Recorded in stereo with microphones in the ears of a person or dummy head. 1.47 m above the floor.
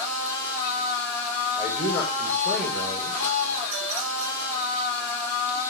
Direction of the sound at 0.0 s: 10° left (ahead or behind).